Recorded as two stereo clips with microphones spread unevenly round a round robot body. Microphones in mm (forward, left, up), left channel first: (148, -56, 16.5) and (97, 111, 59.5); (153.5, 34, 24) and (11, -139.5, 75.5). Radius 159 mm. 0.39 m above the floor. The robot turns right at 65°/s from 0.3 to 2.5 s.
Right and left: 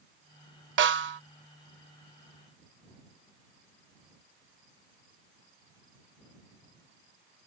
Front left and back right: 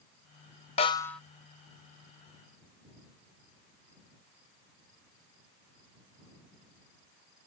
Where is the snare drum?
105° left; by 1.2 s 135° left.